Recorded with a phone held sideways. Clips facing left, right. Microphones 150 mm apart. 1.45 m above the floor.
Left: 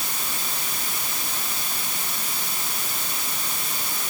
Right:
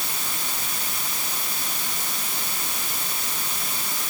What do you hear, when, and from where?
Only background noise.